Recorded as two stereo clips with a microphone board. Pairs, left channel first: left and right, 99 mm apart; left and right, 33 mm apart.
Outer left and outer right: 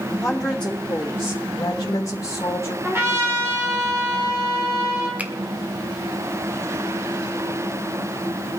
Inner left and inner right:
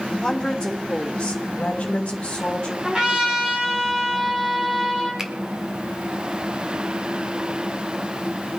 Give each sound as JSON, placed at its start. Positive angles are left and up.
{"t": 0.2, "sound": "a woman speaking", "side_deg": 10, "distance_m": 1.9}
{"t": 2.8, "sound": "a trumpet", "side_deg": -25, "distance_m": 4.0}
{"t": 5.2, "sound": "a finger snap", "side_deg": -15, "distance_m": 1.3}